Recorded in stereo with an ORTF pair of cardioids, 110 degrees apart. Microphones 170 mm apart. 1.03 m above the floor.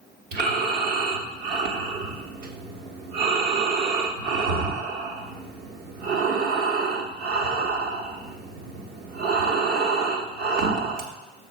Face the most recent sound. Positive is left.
turn(degrees=-65)